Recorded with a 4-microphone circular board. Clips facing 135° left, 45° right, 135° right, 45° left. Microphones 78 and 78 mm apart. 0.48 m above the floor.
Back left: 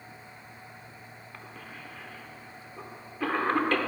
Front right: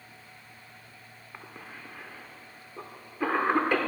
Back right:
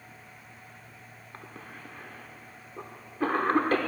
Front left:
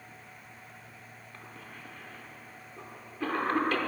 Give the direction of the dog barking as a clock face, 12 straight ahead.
I don't hear a dog barking.